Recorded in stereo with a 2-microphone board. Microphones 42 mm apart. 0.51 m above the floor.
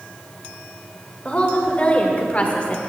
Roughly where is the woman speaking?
Left.